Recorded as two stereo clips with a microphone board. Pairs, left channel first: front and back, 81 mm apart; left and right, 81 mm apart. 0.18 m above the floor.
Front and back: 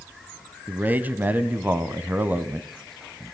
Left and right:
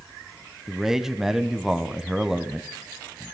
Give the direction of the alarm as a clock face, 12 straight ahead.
No alarm in this recording.